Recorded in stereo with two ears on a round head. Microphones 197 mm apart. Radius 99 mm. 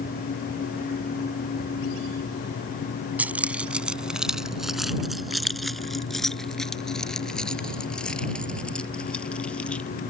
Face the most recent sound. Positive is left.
turn(degrees=5)  # may be behind; listen again after turning